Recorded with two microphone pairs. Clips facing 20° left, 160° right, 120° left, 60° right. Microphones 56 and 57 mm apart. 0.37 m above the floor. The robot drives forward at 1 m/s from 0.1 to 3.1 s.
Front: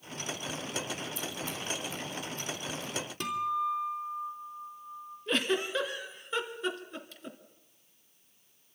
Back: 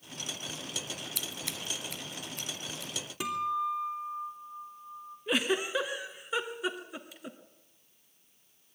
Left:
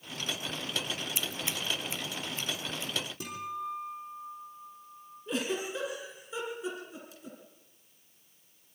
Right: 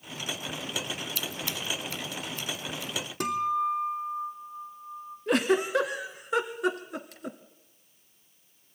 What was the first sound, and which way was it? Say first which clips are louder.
Scissors: front 3 dB, right 1 dB; 170° right.